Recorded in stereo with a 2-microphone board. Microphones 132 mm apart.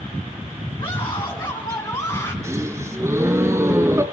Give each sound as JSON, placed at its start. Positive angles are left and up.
{"t": 0.8, "sound": "a scream", "side_deg": 35, "distance_m": 4.0}
{"t": 2.4, "sound": "a gasp", "side_deg": -20, "distance_m": 2.0}